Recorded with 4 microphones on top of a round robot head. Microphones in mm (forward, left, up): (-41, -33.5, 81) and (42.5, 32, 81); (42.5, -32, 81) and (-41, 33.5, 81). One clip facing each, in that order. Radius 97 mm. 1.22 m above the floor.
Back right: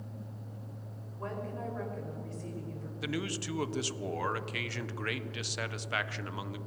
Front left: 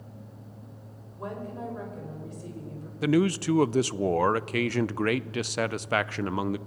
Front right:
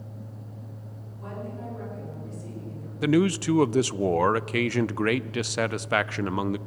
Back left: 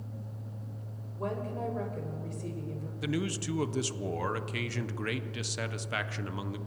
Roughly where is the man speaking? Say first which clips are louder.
Front left 13 dB, front right 12 dB; ahead.